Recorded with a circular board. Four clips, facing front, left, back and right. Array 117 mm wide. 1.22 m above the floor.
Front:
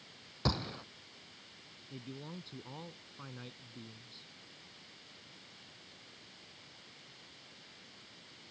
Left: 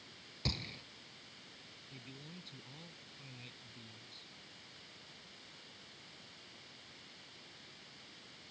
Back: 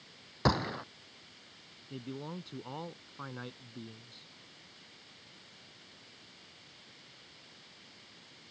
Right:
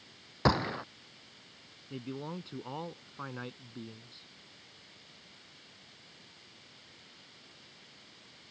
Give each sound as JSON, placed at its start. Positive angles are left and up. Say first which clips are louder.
{"t": 0.5, "sound": "a gunshot", "louder": "right 16 dB, back 7 dB", "azimuth_deg": -120}
{"t": 1.9, "sound": "a man speaking", "louder": "right 15 dB, back 5 dB", "azimuth_deg": -115}